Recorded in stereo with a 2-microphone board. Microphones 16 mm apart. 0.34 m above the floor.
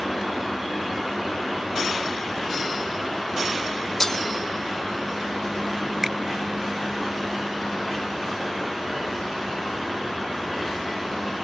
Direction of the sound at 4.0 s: 30° left (ahead or behind).